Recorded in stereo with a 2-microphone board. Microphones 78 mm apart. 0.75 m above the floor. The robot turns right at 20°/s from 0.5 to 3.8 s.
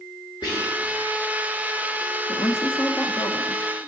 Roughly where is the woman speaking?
Left.